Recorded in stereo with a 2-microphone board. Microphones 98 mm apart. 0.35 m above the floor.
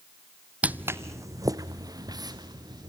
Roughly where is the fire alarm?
No fire alarm in this recording.